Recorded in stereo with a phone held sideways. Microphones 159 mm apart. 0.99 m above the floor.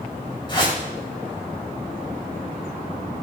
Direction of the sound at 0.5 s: 30° left (ahead or behind).